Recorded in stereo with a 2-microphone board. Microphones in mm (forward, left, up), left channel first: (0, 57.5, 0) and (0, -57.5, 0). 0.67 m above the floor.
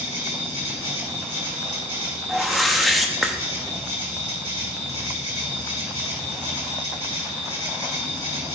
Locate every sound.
0.0 s an insect: 60° right (ahead or behind), 3 m
2.3 s a whoosh: centre (ahead or behind), 0.8 m